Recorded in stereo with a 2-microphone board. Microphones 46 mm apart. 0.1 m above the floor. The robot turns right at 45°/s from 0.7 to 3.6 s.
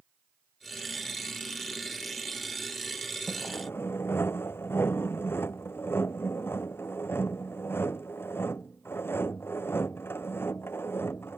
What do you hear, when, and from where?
3.3 s sawing: 50° left (ahead or behind); by 11.4 s 65° left (ahead or behind)